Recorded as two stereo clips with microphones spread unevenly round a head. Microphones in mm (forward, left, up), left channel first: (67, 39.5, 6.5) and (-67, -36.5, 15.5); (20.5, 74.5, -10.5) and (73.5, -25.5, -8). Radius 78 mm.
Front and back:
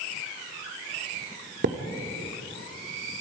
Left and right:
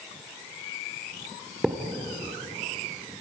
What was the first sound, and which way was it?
A thud, 145° right.